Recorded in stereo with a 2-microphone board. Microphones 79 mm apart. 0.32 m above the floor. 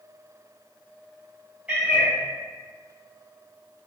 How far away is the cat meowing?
About 1.0 m.